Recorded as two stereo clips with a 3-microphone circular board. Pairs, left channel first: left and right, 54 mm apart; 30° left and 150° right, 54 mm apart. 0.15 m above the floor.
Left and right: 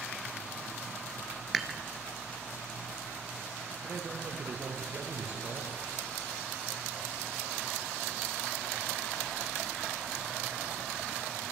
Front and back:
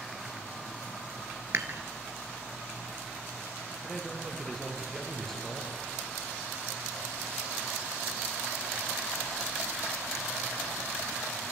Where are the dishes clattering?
175° right, 1.4 m.